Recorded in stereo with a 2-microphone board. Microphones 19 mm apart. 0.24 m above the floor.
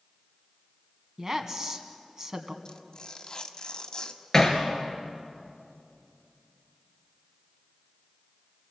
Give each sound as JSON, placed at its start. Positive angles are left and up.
{"t": 1.2, "sound": "a woman speaking", "side_deg": -25, "distance_m": 2.5}
{"t": 2.6, "sound": "tearing paper", "side_deg": 40, "distance_m": 1.6}
{"t": 4.3, "sound": "hammering", "side_deg": 20, "distance_m": 3.0}